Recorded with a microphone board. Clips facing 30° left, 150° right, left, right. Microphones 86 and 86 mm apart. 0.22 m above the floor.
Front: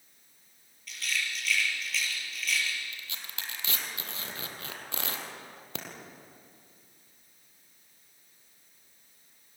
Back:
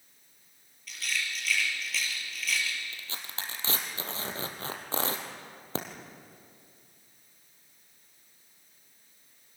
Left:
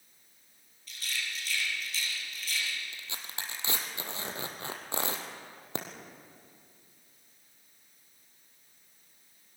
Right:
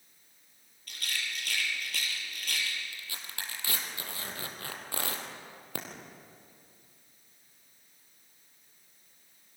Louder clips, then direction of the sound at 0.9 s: Even, right 1 dB; 60° right.